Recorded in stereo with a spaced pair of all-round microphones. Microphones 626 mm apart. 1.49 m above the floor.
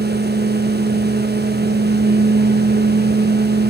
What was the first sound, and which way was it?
A fan, 15° right (ahead or behind).